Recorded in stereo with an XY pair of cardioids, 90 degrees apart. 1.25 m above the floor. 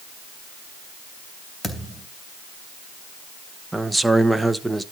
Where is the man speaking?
10° right, 1.0 m.